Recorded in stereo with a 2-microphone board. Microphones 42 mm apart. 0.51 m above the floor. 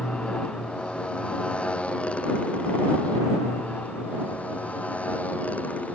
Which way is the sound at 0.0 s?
20° left (ahead or behind).